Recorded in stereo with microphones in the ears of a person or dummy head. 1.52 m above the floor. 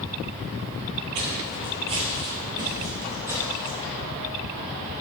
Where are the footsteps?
30° right (ahead or behind), 1.7 m; by 3.8 s 10° right (ahead or behind), 2.5 m.